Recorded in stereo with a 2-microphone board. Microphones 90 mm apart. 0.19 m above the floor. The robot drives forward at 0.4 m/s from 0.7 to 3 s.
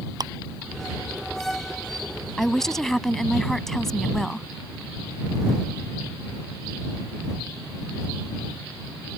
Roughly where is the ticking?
Right.